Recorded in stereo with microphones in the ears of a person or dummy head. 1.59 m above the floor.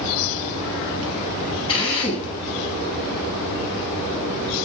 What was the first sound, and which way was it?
A drill, 30° left (ahead or behind).